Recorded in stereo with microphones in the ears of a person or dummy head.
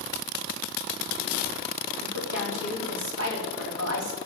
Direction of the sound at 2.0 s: 80° right.